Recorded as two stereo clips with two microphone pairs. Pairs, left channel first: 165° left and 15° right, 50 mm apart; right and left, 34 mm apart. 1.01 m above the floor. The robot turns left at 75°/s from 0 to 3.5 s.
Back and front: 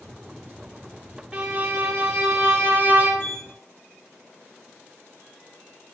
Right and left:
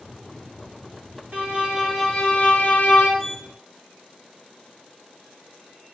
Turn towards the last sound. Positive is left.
turn(degrees=180)